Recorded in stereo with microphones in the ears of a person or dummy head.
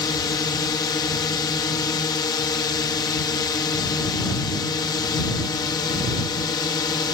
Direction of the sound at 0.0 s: 20° left (ahead or behind).